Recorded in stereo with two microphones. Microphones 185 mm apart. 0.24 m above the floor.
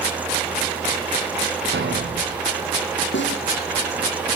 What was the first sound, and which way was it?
A thud, 75° right (ahead or behind).